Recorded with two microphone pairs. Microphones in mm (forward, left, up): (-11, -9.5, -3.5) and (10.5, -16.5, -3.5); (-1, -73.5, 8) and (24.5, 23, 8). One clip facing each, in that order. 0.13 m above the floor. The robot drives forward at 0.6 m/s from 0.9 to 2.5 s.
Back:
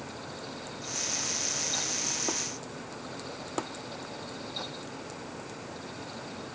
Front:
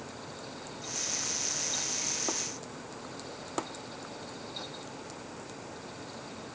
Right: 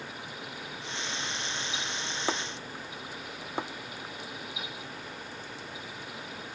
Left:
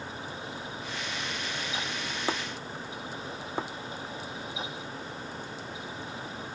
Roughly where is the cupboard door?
No cupboard door in this recording.